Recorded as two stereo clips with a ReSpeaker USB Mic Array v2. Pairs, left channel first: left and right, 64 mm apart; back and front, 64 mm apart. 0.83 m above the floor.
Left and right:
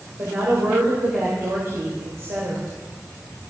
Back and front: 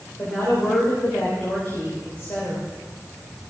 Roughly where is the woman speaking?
Behind right.